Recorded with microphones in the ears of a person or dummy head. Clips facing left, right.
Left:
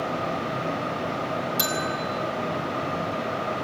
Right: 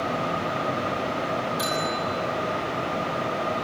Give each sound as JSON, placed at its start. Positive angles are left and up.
{"t": 1.6, "sound": "a bell", "side_deg": 30, "distance_m": 6.5}